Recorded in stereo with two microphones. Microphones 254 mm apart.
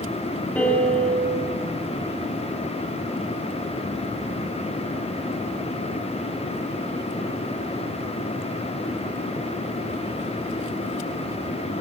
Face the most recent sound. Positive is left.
turn(degrees=5)  # may be behind; listen again after turning